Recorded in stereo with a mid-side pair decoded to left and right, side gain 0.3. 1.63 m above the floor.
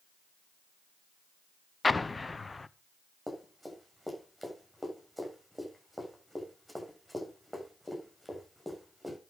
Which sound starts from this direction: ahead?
Running footsteps, at 3.3 s.